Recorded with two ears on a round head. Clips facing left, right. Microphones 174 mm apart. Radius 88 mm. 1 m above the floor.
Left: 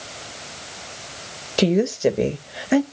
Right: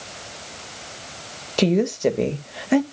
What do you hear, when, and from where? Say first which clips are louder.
1.6 s a woman speaking: left 1 dB; 5° left (ahead or behind), 1.0 m